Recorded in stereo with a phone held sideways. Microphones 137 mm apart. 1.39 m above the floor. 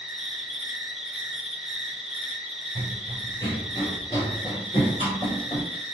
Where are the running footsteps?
15° left (ahead or behind), 1.7 m; by 5.7 s 55° left (ahead or behind), 2.5 m.